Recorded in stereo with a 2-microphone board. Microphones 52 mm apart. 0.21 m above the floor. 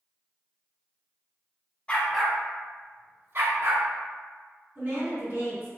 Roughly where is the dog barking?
Left.